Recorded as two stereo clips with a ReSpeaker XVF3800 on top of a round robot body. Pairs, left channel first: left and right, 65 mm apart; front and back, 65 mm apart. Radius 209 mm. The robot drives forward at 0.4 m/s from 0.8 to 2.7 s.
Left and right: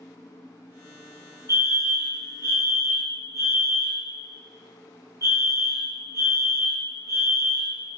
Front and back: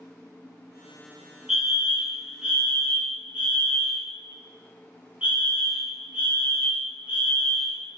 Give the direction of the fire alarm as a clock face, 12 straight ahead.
3 o'clock.